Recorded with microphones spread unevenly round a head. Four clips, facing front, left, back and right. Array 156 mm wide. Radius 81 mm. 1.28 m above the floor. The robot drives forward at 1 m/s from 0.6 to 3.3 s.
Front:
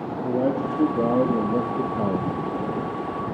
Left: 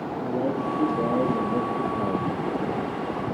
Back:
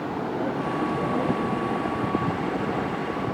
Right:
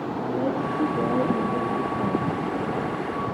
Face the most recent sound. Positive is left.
turn(degrees=50)